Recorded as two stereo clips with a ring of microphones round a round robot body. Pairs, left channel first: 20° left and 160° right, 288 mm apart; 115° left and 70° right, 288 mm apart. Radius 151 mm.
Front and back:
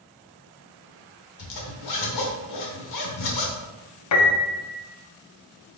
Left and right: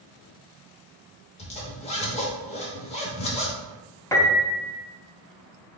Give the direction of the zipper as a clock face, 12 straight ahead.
11 o'clock.